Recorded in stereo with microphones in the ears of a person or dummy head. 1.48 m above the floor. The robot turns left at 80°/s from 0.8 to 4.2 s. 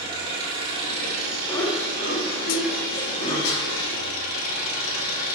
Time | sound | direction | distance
0.0 | an engine running | 25° right | 3 m
1.5 | laughter | 10° left (ahead or behind) | 3 m
3.5 | a snare drum | 80° left | 2.5 m